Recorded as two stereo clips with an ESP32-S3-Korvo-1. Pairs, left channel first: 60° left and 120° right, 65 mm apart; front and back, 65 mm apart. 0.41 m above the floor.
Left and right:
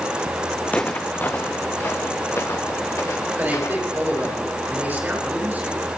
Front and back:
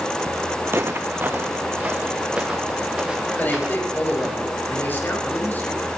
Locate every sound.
0.7 s footsteps: 130° left, 1.3 m; by 4.4 s 100° left, 3 m
3.4 s a man speaking: 60° right, 6.5 m